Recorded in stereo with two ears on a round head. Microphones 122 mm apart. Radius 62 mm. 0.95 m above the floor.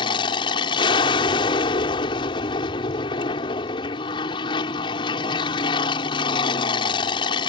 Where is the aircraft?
35° left (ahead or behind).